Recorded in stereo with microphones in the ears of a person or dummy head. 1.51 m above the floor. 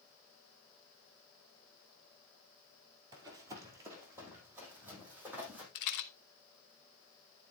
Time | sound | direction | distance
3.1 | running footsteps | 20° right (ahead or behind) | 1.8 m
5.8 | a rattle | 50° left (ahead or behind) | 1.0 m